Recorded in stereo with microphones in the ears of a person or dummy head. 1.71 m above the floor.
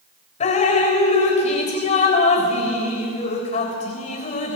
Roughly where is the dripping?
Left.